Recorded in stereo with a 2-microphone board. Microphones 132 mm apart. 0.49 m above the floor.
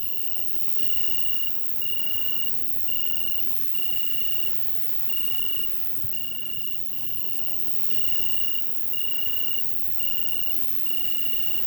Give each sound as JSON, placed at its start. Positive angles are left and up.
{"t": 0.0, "sound": "an insect", "side_deg": -65, "distance_m": 1.0}